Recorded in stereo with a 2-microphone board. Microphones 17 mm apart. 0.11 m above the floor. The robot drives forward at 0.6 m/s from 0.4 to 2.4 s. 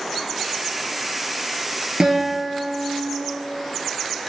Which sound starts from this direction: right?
A guitar, at 2.0 s.